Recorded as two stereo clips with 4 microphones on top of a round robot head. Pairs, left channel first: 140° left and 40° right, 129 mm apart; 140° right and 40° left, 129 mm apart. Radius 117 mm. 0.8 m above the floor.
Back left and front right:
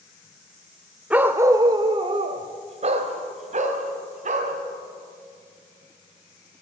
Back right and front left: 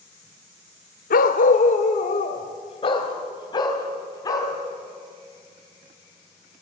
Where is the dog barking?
125° right, 1.1 m; by 4.5 s 70° right, 3 m.